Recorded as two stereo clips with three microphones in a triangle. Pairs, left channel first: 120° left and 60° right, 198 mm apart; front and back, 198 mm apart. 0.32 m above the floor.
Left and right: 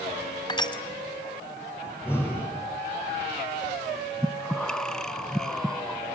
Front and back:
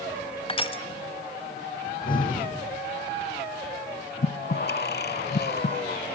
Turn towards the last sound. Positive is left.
turn(degrees=35)